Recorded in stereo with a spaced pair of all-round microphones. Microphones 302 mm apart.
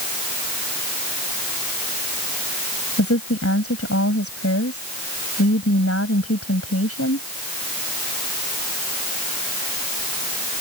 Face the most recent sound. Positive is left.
turn(degrees=45)  # may be behind; listen again after turning